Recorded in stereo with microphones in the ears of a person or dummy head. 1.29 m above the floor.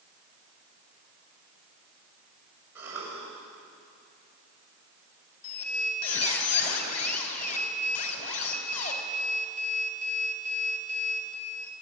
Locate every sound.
2.8 s a cough: 15° right (ahead or behind), 7 m
5.4 s a squeak: 50° left (ahead or behind), 3.5 m